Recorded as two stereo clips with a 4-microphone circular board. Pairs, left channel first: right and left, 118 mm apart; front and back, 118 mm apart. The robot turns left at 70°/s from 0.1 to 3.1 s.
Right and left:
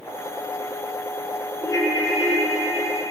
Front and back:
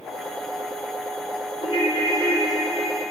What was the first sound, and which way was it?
A ringtone, 25° right.